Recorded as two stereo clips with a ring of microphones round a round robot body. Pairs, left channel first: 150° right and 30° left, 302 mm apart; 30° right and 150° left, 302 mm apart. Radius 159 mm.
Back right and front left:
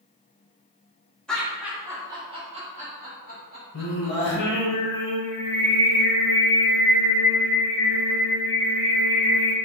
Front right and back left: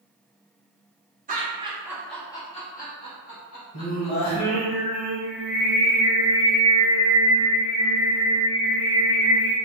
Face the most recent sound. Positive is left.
turn(degrees=-100)